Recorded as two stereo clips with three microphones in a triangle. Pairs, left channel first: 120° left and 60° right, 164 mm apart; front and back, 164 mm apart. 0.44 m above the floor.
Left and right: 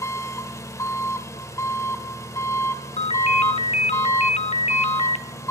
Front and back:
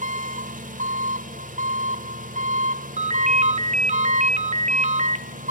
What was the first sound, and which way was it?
An engine running, 175° right.